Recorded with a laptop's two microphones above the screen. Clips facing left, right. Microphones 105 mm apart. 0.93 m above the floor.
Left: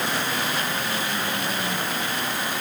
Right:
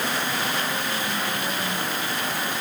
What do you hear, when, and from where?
Only background noise.